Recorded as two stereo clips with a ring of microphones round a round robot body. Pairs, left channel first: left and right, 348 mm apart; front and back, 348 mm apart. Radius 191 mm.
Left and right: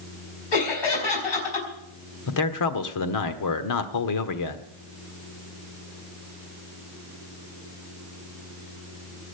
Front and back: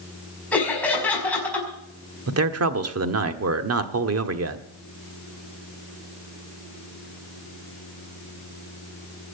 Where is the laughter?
85° left, 5 m.